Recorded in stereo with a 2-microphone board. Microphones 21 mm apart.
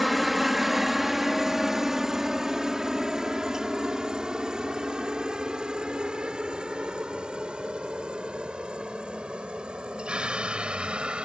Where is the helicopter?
5° right (ahead or behind); by 11.3 s 65° right (ahead or behind).